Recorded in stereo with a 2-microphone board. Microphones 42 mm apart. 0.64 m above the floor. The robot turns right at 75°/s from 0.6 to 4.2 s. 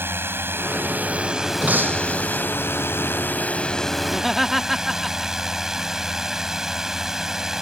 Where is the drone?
80° right; by 7.6 s 170° right.